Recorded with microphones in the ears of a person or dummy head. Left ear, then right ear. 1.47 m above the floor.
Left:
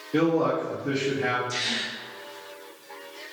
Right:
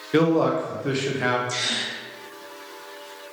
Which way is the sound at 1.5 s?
45° right (ahead or behind).